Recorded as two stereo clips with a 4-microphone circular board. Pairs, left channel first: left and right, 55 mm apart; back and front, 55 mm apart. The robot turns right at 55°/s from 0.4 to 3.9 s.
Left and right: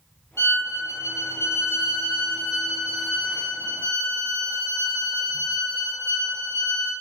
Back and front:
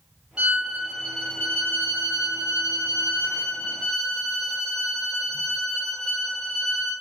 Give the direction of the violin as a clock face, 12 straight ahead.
10 o'clock.